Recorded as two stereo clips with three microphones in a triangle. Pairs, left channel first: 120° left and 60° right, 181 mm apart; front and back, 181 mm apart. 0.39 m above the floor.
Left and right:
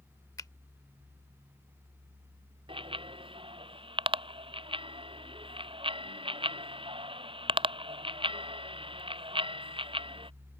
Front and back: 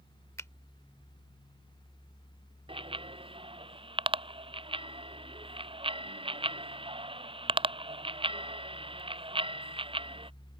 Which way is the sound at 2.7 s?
120° right.